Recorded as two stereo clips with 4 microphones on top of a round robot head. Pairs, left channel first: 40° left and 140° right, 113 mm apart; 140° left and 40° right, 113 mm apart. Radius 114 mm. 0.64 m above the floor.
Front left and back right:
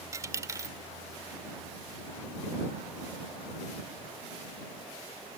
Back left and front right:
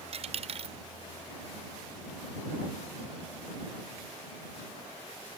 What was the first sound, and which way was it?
A dropped coin, 75° right.